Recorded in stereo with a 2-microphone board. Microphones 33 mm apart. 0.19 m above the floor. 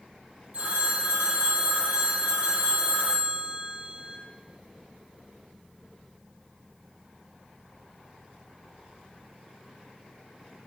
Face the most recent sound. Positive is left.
turn(degrees=-45)  # may be behind; listen again after turning